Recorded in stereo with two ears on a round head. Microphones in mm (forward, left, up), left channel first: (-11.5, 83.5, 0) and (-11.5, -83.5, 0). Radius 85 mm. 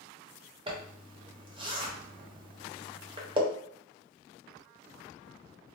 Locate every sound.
0.7 s a zipper: 25° right (ahead or behind), 0.7 m